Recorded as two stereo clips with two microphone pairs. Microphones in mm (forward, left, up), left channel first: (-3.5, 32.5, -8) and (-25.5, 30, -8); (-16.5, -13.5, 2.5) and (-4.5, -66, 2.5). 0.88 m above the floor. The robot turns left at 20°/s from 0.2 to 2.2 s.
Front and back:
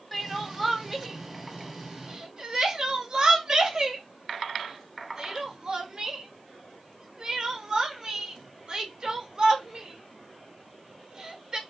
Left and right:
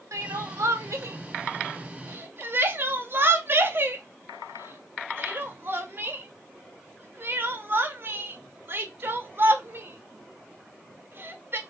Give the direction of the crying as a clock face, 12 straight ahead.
3 o'clock.